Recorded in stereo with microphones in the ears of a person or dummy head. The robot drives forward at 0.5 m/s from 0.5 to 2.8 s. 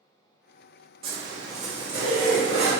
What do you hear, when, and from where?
1.0 s a zipper: 30° right (ahead or behind), 0.6 m; by 2.7 s 10° right (ahead or behind), 1.4 m